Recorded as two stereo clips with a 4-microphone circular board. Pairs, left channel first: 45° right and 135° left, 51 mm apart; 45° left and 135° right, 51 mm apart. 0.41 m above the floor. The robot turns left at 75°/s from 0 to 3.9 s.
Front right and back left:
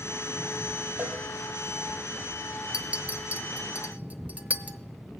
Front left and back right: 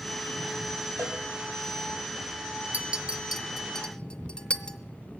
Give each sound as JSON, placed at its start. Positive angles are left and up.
{"t": 1.0, "sound": "a cowbell", "azimuth_deg": -170, "distance_m": 2.0}
{"t": 2.7, "sound": "a clink", "azimuth_deg": -170, "distance_m": 0.6}